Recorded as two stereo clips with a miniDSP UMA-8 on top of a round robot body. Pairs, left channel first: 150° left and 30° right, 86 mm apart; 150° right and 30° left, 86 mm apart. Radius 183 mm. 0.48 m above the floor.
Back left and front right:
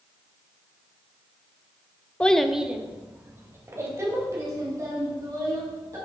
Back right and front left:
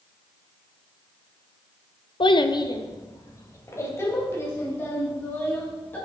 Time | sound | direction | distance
2.2 | a child speaking | 135° right | 1.0 m